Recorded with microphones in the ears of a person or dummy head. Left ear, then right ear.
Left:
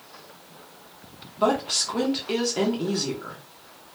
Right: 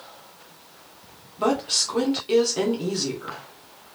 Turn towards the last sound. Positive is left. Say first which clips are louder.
# even
turn(degrees=0)  # may be behind; listen again after turning